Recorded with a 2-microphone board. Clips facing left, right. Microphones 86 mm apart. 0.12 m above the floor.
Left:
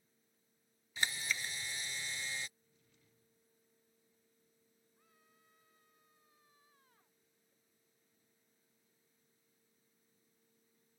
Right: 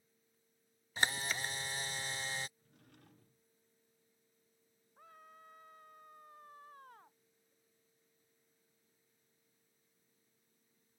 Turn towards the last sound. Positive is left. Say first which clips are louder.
# right 16 dB
turn(degrees=-70)  # may be behind; listen again after turning